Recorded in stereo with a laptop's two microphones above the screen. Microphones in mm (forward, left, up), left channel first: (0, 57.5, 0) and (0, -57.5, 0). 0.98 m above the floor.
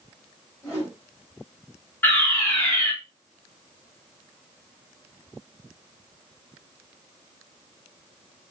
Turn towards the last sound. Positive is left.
turn(degrees=15)  # may be behind; listen again after turning